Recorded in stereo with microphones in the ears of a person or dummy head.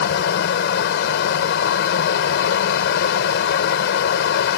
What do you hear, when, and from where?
0.0 s a fan: 75° left (ahead or behind)